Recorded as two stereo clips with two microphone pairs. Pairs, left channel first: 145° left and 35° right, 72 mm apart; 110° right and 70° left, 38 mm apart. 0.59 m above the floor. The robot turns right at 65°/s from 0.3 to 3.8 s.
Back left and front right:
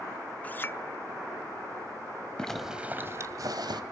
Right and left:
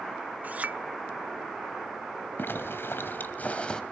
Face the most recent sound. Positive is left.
turn(degrees=-45)